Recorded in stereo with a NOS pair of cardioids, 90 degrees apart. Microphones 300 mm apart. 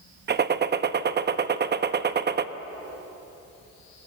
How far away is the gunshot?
About 0.9 m.